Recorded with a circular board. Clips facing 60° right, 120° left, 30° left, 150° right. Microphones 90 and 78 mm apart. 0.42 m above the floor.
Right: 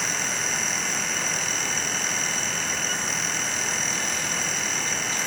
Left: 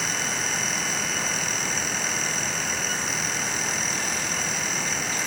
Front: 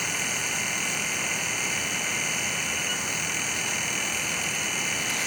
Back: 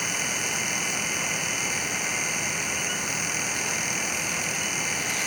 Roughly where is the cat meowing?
I don't hear a cat meowing.